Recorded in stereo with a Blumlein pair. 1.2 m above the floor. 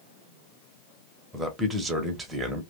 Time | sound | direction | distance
1.3 | a man speaking | 10° right | 1.0 m